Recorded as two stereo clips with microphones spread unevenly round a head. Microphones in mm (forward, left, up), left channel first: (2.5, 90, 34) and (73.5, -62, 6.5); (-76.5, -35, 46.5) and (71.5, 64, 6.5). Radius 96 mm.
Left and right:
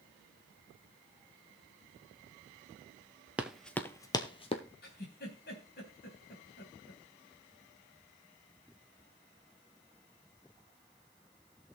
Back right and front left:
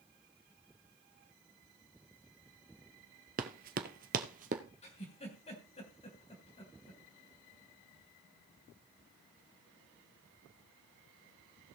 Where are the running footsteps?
30° left, 1.0 m; by 4.6 s 85° left, 1.5 m.